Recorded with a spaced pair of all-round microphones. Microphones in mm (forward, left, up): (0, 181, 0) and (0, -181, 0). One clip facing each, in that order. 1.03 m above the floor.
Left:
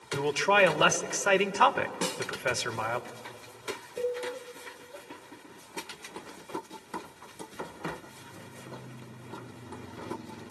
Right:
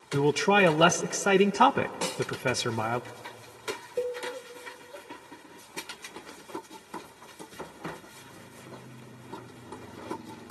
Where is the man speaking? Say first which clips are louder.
Right 4 dB; 55° right (ahead or behind), 0.7 m.